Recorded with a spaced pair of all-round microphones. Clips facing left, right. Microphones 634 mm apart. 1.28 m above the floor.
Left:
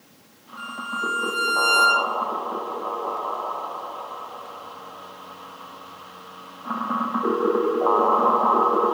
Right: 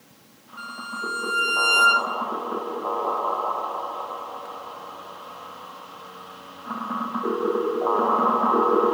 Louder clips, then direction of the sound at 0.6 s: Left 3 dB; centre (ahead or behind).